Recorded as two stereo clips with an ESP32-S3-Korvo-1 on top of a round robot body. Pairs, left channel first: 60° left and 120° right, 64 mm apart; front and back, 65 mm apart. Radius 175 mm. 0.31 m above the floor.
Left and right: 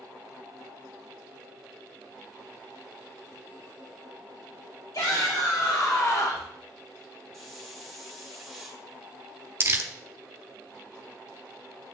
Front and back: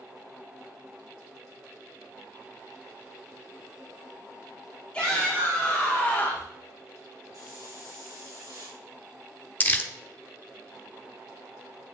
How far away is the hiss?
About 3.5 m.